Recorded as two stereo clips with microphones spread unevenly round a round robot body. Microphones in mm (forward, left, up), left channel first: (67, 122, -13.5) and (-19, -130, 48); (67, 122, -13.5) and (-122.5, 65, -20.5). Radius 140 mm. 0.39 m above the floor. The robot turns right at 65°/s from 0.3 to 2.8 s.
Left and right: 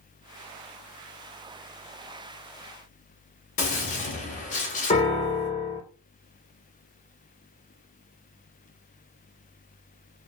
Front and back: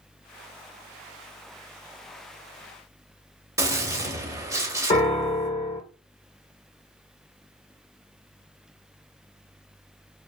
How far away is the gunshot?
About 0.8 m.